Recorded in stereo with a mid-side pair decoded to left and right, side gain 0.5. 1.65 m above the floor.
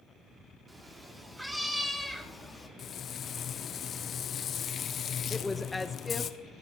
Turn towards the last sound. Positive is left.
turn(degrees=15)